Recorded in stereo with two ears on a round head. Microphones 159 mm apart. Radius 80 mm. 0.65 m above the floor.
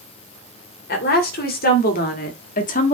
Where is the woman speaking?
55° left (ahead or behind), 2.5 m; by 2.9 s 45° left (ahead or behind), 1.2 m.